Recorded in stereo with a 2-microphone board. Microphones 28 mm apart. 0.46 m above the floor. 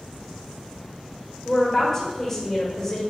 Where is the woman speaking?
20° left (ahead or behind), 1.4 m.